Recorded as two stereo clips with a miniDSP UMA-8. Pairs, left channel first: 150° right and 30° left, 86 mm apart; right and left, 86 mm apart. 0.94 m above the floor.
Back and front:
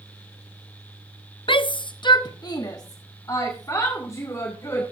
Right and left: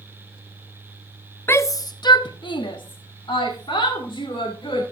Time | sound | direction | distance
1.5 | a shout | 150° right | 0.5 m